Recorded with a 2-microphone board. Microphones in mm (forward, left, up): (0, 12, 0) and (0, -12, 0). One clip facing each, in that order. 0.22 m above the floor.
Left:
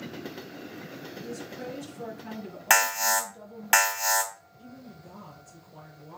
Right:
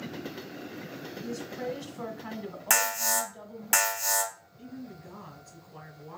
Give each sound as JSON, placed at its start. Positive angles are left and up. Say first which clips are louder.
{"t": 1.2, "sound": "a woman speaking", "louder": "right 4 dB", "side_deg": -45, "distance_m": 1.7}
{"t": 2.7, "sound": "an alarm", "louder": "left 4 dB", "side_deg": 30, "distance_m": 1.9}
{"t": 4.6, "sound": "a woman speaking", "louder": "right 3 dB", "side_deg": -65, "distance_m": 2.5}